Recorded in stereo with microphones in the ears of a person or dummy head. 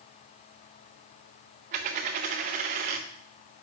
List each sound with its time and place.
1.7 s a dropped coin: 30° right (ahead or behind), 1.0 m